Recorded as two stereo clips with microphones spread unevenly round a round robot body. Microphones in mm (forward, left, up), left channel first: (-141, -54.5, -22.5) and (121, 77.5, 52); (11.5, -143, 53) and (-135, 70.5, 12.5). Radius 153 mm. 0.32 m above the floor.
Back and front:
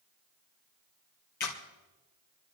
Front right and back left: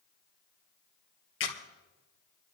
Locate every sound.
1.4 s a camera shutter: 95° right, 2.5 m